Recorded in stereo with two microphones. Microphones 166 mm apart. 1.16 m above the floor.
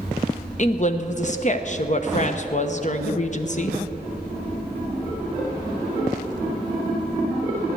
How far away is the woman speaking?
About 0.9 m.